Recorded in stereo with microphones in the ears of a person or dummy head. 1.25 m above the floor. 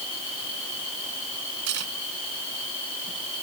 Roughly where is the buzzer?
No buzzer in this recording.